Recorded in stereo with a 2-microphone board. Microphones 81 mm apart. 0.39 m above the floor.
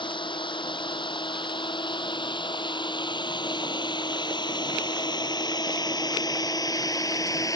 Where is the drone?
80° left; by 7.6 s 45° left (ahead or behind).